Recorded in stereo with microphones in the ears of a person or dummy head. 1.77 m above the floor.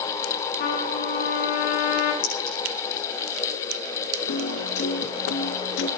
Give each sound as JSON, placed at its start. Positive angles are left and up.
{"t": 0.6, "sound": "a trumpet", "side_deg": 45, "distance_m": 9.5}
{"t": 2.2, "sound": "a clink", "side_deg": 55, "distance_m": 8.5}
{"t": 4.3, "sound": "a piano", "side_deg": 60, "distance_m": 1.4}